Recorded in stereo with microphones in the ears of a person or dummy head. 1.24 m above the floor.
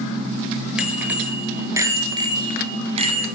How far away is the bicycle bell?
About 2 m.